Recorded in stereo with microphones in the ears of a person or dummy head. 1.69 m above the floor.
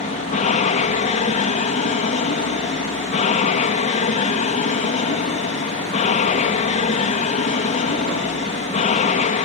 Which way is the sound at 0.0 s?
35° left (ahead or behind).